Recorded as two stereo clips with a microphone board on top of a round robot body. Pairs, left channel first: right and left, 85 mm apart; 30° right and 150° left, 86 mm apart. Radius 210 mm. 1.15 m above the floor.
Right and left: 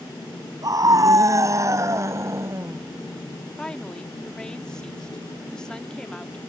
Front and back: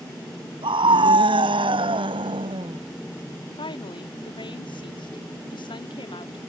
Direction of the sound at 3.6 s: 10° right.